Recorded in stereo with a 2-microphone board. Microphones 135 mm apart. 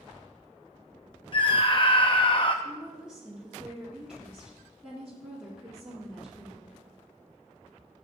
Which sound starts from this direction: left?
A scream, at 1.3 s.